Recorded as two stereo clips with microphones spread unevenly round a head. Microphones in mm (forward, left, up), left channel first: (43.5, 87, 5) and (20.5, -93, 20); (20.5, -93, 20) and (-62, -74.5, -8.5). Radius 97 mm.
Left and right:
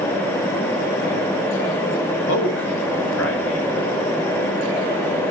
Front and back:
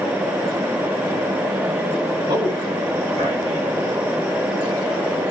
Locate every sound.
2.3 s a man speaking: 110° left, 5.5 m